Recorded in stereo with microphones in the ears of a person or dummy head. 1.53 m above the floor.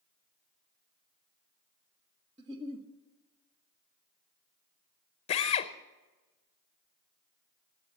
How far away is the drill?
About 0.8 m.